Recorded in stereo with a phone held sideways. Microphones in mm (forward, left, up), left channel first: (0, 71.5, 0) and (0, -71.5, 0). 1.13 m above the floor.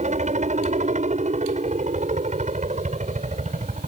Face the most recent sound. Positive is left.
turn(degrees=-55)  # may be behind; listen again after turning